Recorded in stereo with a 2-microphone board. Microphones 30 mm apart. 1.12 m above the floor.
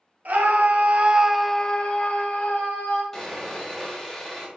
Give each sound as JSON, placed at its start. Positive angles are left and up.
{"t": 0.2, "sound": "a scream", "side_deg": -70, "distance_m": 1.2}
{"t": 3.1, "sound": "sawing", "side_deg": 15, "distance_m": 2.0}